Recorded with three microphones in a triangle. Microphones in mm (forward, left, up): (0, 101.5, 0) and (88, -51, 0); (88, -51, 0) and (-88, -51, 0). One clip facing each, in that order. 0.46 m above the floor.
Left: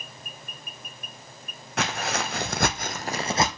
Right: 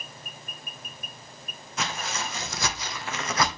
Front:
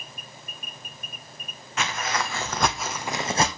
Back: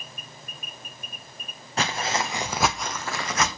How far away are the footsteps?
About 1.4 m.